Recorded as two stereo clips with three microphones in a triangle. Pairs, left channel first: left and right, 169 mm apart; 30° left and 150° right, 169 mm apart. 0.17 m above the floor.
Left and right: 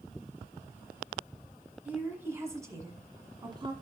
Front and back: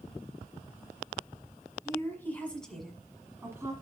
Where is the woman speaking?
20° right, 1.5 m; by 3.7 s 100° right, 1.5 m.